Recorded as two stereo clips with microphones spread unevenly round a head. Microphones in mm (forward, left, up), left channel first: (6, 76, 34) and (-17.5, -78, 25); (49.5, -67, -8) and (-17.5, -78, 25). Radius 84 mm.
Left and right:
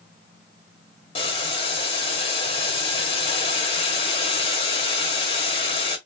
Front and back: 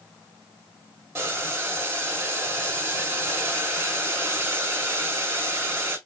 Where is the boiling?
135° left, 1.2 m.